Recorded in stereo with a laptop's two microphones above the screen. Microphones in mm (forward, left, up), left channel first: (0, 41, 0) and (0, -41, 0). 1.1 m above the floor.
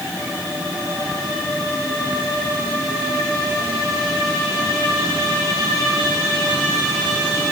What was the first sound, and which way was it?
Only background noise.